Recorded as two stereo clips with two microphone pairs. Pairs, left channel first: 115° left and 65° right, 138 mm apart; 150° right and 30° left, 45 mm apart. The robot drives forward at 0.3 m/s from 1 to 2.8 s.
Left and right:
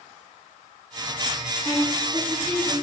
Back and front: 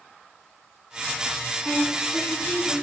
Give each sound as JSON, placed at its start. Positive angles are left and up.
{"t": 1.6, "sound": "a woman speaking", "azimuth_deg": -175, "distance_m": 1.2}